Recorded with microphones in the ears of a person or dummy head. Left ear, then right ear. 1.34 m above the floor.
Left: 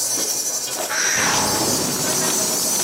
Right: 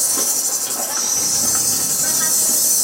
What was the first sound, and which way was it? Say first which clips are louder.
An insect: right 2 dB; 35° right (ahead or behind).